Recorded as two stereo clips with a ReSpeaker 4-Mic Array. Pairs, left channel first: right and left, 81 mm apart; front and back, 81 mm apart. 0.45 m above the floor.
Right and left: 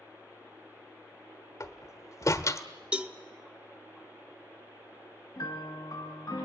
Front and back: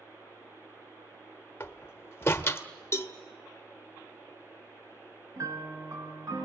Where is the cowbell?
20° left, 0.9 m.